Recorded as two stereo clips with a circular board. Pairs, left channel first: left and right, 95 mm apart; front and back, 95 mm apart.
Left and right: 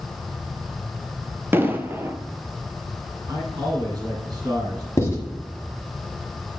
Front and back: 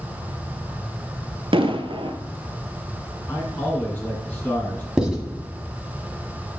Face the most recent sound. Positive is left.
turn(degrees=105)